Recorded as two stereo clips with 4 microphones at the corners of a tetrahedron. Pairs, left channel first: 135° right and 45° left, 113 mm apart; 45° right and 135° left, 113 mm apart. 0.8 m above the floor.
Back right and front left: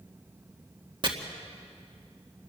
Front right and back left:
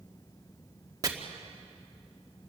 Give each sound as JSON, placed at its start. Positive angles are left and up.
{"t": 1.0, "sound": "chopping", "azimuth_deg": 85, "distance_m": 1.9}